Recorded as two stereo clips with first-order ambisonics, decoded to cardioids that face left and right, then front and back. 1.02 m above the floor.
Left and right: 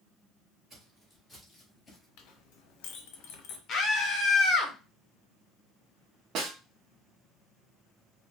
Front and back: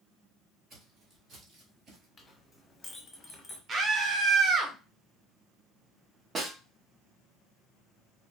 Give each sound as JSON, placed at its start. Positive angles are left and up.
{"t": 0.7, "sound": "footsteps", "azimuth_deg": -140, "distance_m": 1.2}
{"t": 2.2, "sound": "a clink", "azimuth_deg": 75, "distance_m": 0.8}
{"t": 3.7, "sound": "a scream", "azimuth_deg": 125, "distance_m": 0.7}
{"t": 6.3, "sound": "a snare drum", "azimuth_deg": -115, "distance_m": 0.7}